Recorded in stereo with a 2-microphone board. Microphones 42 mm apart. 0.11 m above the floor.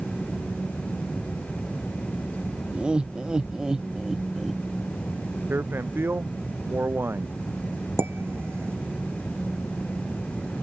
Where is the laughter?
25° right (ahead or behind); by 4.6 s centre (ahead or behind).